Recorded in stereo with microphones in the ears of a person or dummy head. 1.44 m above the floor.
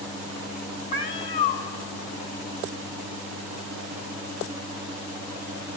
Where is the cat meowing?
30° left (ahead or behind), 1.5 m.